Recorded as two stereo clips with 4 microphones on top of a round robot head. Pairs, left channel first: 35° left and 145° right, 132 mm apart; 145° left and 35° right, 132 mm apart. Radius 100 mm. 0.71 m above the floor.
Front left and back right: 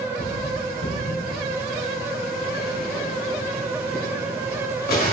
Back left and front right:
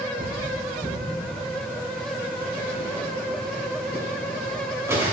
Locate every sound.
0.2 s cutlery clinking: 40° left, 2 m